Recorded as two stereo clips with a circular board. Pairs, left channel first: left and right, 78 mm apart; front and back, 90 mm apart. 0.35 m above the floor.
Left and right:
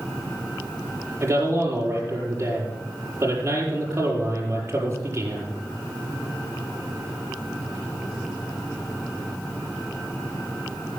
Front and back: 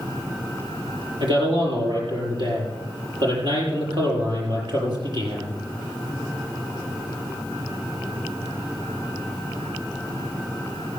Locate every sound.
1.2 s a man speaking: 145° right, 7 m